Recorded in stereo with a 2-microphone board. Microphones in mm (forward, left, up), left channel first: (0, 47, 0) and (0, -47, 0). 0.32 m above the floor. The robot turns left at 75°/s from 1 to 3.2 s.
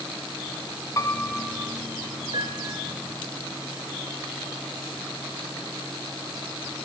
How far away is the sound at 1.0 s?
About 1.4 m.